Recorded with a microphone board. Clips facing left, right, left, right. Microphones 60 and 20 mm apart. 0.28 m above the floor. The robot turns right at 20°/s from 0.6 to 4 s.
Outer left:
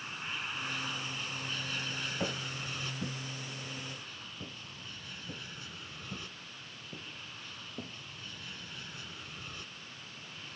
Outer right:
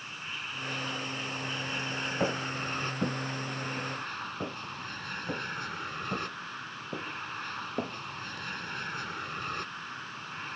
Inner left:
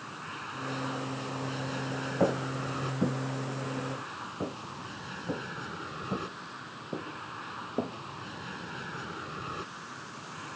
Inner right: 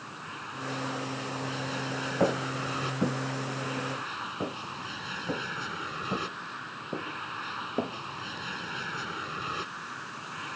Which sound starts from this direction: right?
Footsteps, at 2.2 s.